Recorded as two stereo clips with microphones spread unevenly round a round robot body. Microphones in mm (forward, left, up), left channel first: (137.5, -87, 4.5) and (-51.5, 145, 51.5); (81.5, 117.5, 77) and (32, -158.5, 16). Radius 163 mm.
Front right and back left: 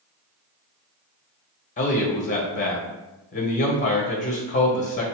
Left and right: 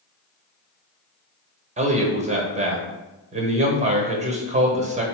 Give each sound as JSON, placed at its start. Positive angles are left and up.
{"t": 1.8, "sound": "a man speaking", "azimuth_deg": -80, "distance_m": 1.3}